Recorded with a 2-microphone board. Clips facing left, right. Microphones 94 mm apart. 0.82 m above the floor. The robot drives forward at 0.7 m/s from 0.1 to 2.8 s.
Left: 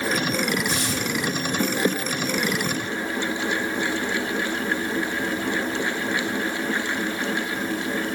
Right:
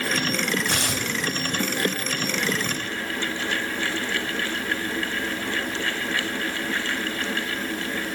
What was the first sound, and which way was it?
Tearing paper, 70° right (ahead or behind).